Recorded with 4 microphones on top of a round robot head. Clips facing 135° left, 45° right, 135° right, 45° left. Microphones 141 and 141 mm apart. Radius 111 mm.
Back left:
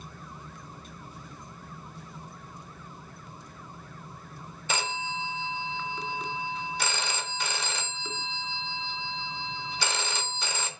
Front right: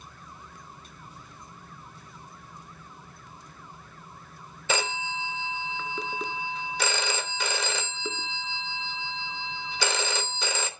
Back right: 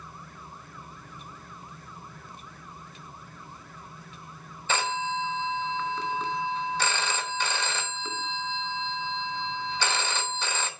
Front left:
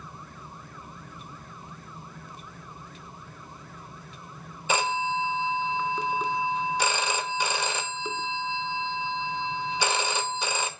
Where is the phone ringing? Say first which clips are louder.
Front right 3 dB, front left 3 dB; 35° right, 0.9 m.